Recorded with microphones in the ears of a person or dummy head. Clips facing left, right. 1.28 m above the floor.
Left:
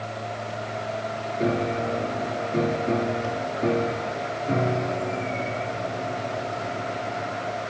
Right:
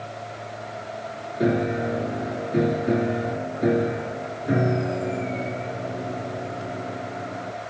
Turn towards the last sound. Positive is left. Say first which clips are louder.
# right 3 dB
turn(degrees=-20)  # may be behind; listen again after turning